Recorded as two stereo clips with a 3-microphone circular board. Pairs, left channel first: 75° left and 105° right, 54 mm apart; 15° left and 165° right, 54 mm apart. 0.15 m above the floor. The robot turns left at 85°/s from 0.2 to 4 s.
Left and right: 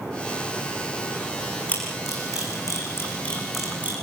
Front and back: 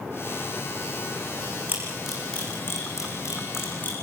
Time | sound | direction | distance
1.7 | a camera shutter | 140° left | 8.5 m